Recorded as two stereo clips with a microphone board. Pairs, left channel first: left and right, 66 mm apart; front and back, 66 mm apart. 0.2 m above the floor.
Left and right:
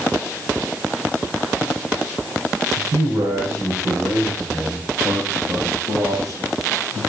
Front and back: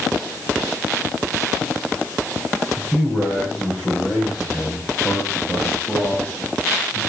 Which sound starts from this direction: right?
A man speaking, at 2.8 s.